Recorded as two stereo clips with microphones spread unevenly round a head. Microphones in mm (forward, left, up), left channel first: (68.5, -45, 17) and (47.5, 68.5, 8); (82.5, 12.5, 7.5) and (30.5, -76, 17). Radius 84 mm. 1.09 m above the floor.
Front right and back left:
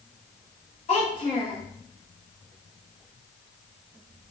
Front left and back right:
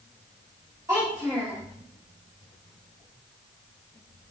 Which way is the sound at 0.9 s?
60° right.